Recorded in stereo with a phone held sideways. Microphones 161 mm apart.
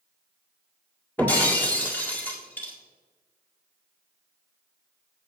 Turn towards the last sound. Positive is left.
turn(degrees=10)  # may be behind; listen again after turning